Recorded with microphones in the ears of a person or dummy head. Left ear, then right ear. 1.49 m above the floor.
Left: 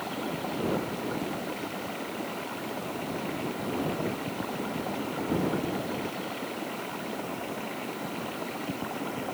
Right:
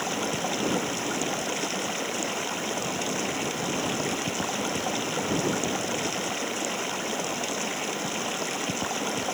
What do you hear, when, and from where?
0.0 s running water: 80° right